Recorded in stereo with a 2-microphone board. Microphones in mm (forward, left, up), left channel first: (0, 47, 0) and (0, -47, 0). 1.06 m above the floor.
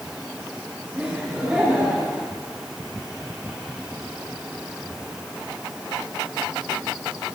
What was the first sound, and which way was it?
Laughter, 15° right (ahead or behind).